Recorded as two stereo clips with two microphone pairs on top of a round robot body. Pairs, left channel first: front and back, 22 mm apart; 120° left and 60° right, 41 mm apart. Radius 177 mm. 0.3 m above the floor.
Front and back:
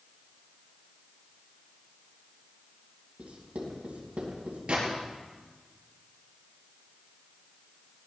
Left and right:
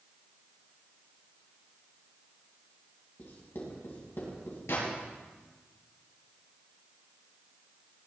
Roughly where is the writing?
Behind left.